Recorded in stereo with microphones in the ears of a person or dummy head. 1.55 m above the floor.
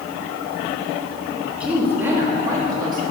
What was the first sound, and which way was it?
A woman speaking, 5° right (ahead or behind).